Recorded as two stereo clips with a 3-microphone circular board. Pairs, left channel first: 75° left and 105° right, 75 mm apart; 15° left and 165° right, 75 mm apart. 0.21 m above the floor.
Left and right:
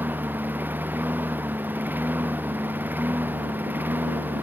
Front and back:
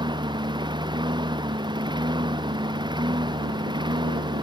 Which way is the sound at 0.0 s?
170° right.